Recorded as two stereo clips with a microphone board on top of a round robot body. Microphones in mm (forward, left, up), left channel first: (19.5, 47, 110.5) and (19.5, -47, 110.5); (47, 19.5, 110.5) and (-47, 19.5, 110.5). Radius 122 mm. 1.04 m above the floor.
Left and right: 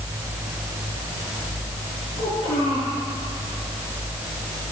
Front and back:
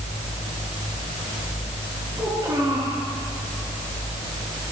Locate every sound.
2.2 s a child speaking: 125° left, 9 m